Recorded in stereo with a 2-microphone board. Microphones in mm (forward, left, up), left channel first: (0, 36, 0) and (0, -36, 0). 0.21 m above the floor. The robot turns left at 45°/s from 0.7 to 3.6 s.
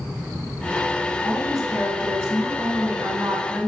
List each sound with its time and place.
1.2 s a woman speaking: 5° left, 2 m; by 3.7 s 105° right, 2 m